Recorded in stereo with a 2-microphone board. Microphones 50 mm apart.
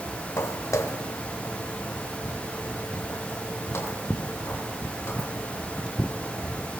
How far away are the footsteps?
About 2.5 m.